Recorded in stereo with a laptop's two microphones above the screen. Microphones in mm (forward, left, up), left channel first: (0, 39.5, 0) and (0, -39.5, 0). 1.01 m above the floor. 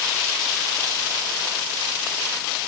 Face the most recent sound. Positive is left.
No sound to turn to.